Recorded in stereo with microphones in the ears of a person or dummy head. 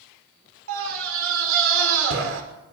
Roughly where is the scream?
Right.